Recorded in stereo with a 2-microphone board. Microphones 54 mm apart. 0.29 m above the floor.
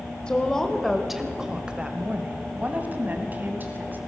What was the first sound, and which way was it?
A woman speaking, 15° left (ahead or behind).